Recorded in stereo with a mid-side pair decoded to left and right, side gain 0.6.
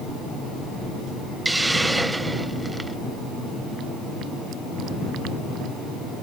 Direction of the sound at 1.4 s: 10° right.